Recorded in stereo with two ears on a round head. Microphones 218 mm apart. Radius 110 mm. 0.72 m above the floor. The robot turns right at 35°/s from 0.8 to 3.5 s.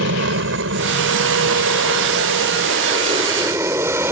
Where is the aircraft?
55° right (ahead or behind); by 4.1 s 10° right (ahead or behind).